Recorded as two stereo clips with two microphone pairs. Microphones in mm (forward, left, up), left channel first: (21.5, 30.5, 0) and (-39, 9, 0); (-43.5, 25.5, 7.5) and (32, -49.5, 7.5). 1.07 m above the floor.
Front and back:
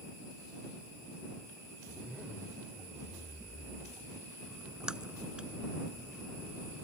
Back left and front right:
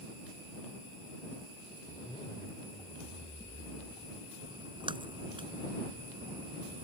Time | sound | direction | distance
1.9 | a zipper | 120° left | ?
4.5 | a splash | 85° right | ?